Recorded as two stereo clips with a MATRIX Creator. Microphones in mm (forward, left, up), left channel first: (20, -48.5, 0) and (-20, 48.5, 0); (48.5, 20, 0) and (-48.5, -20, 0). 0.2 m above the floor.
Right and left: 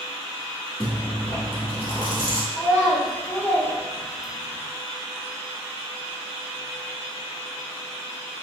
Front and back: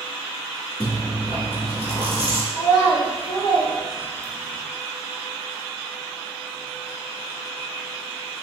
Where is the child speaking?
5° right, 1.2 m.